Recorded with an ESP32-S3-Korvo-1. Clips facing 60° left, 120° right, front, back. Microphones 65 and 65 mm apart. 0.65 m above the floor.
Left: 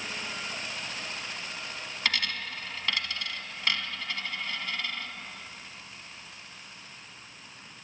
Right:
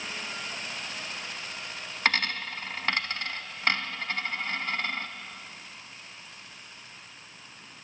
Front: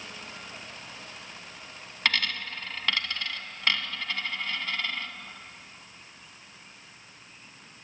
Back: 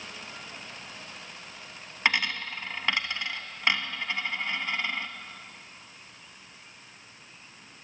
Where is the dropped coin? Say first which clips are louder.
Right 4 dB, back 2 dB; 120° right, 0.6 m.